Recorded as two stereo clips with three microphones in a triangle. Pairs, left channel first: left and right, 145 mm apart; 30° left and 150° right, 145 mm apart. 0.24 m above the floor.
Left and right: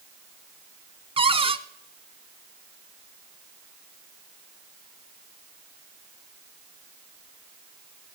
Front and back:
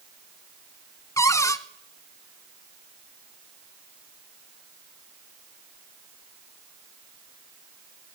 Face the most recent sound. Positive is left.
turn(degrees=-40)